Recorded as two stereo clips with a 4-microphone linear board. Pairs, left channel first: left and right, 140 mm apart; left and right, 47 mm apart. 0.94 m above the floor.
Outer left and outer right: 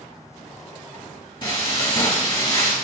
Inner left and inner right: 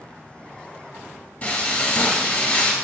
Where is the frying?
35° left (ahead or behind), 1.0 m.